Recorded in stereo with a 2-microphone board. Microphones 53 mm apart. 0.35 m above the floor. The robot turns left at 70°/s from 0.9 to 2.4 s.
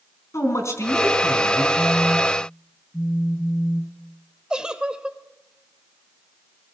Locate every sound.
0.3 s a man speaking: 80° left, 3.5 m; by 1.6 s 25° left, 3.5 m
1.8 s a phone buzzing: 55° left, 4.5 m; by 4.0 s 10° left, 4.5 m
4.5 s a giggle: 15° right (ahead or behind), 1.1 m